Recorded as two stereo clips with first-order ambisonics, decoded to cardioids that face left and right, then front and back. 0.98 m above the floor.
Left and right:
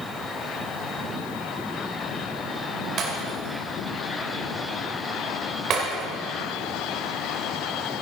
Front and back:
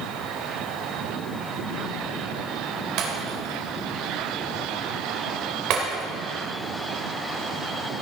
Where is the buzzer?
I don't hear a buzzer.